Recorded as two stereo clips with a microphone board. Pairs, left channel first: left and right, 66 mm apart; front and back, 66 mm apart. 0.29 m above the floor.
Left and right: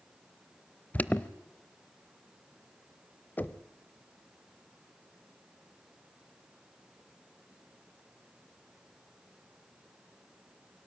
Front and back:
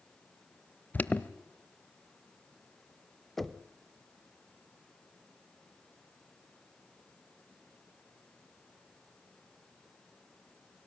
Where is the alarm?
40° left, 0.7 m.